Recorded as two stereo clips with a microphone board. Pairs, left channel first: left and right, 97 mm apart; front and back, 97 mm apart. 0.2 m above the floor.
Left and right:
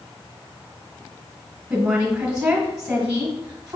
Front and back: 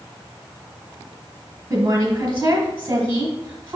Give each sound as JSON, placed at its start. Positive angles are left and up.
{"t": 1.7, "sound": "a woman speaking", "azimuth_deg": -140, "distance_m": 1.5}